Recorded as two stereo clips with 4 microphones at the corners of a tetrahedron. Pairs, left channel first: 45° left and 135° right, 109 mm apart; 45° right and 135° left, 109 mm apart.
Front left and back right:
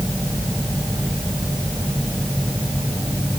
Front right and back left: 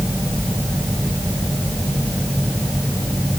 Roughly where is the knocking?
No knocking in this recording.